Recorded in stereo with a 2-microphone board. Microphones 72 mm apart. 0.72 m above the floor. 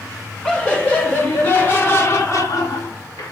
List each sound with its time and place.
0.4 s laughter: 15° left (ahead or behind), 2 m; by 3.3 s 65° left (ahead or behind), 1.2 m